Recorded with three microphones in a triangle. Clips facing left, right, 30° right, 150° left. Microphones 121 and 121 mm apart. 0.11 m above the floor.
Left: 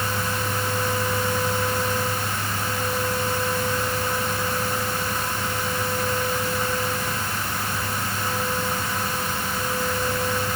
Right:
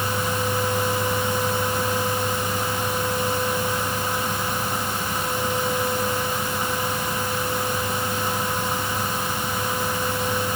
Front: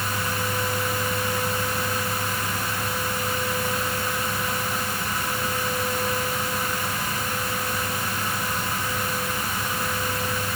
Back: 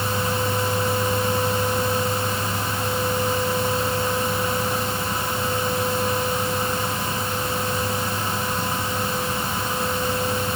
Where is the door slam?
No door slam in this recording.